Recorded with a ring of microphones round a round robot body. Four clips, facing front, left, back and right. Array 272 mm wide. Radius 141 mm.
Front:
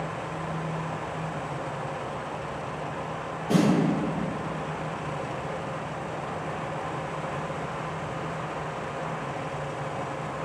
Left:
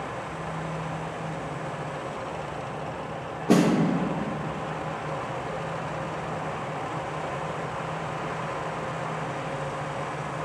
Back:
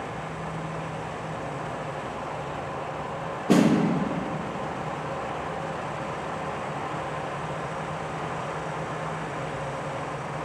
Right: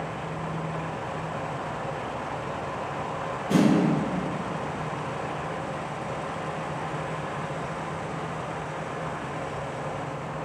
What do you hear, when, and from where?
3.5 s a snare drum: 130° left, 3 m